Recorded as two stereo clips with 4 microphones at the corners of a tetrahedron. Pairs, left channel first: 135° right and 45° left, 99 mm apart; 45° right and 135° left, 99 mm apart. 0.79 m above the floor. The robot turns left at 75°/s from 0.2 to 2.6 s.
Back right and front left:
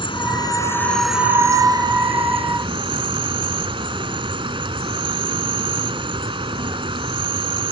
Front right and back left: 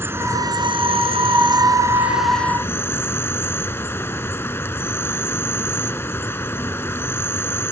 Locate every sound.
0.0 s an insect: 160° right; by 7.7 s 20° left